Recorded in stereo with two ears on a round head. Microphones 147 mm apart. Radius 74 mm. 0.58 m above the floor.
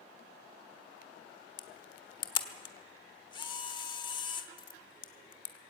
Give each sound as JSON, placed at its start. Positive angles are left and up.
{"t": 1.6, "sound": "a camera shutter", "side_deg": 30, "distance_m": 1.4}